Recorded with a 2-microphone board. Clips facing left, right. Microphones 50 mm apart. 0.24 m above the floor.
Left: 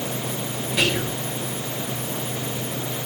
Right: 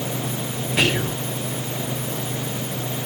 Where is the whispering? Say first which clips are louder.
Right 2 dB; 35° right (ahead or behind), 1.3 m.